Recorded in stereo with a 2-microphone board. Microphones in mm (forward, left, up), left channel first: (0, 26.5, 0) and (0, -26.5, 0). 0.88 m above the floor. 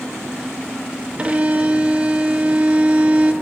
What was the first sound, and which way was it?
A violin, 25° right (ahead or behind).